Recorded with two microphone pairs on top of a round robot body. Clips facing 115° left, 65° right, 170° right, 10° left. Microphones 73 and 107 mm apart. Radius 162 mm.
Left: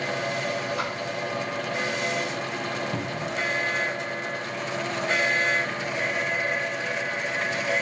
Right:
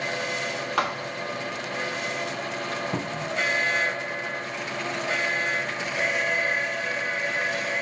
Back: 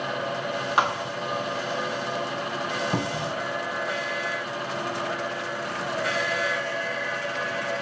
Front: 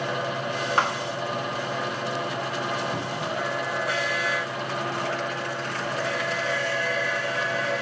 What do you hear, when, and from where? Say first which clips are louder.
0.8 s a thud: right 3 dB, back 2 dB; 95° right, 0.9 m
2.9 s a cupboard door: even, back 1 dB; 130° right, 1.0 m